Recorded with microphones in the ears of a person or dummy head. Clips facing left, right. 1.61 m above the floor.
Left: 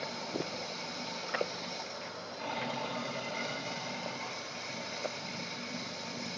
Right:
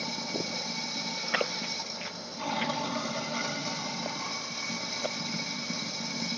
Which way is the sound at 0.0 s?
65° right (ahead or behind).